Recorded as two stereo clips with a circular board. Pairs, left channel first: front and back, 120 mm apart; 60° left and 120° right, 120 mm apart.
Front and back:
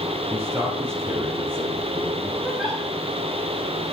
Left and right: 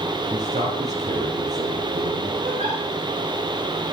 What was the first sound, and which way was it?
A man speaking, 110° right.